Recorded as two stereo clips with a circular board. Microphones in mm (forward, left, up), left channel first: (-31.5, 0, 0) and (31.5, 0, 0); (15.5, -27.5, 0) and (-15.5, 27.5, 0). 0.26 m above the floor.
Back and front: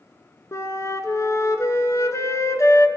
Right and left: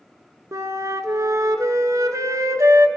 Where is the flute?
145° left, 0.7 m.